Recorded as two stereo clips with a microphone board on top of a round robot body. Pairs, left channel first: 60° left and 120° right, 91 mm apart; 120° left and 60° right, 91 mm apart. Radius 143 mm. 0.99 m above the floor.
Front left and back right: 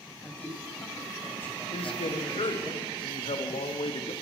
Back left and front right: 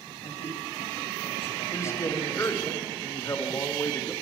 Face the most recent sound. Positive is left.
turn(degrees=60)